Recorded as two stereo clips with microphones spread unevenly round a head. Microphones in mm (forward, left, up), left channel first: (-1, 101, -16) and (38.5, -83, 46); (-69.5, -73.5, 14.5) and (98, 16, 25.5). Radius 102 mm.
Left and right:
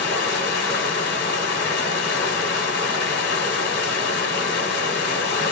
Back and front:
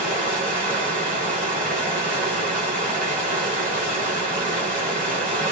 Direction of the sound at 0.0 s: 120° left.